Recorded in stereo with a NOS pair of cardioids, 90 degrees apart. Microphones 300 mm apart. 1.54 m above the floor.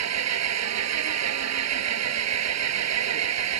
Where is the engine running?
60° right.